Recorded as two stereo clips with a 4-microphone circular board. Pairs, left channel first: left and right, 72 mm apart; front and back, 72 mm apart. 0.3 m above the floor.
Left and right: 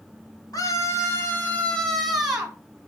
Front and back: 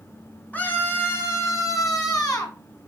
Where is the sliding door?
I don't hear a sliding door.